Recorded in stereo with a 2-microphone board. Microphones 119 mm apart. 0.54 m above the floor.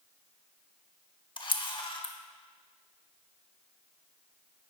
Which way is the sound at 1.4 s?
40° left (ahead or behind).